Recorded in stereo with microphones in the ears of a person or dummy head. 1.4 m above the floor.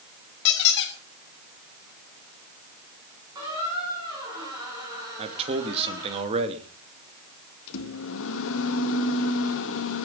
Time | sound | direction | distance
0.5 | a squeak | 60° left (ahead or behind) | 3 m
3.4 | a squeak | 20° right (ahead or behind) | 9 m
5.2 | a man speaking | 35° right (ahead or behind) | 2.5 m
7.7 | a microwave | 70° left (ahead or behind) | 2.0 m